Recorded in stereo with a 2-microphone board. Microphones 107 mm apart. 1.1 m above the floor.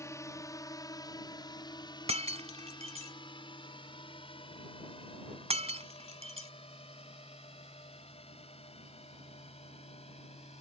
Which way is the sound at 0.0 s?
25° left (ahead or behind).